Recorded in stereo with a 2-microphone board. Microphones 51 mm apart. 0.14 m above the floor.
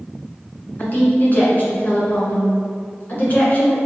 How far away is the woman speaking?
About 1.6 m.